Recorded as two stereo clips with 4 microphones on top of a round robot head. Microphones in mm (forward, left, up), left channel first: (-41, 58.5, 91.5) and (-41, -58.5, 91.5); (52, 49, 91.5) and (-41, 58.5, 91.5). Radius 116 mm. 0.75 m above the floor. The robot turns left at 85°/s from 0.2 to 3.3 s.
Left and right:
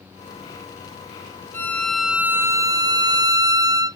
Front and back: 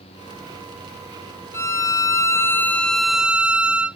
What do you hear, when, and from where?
1.5 s a violin: 35° left; by 4.0 s 115° right